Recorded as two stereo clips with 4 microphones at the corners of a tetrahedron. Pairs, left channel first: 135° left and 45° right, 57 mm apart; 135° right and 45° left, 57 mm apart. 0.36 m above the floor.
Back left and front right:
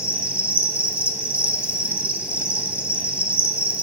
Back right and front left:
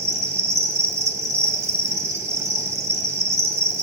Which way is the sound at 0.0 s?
20° left.